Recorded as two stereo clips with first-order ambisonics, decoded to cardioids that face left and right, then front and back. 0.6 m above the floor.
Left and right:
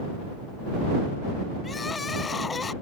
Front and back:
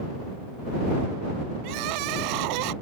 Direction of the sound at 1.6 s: 165° left.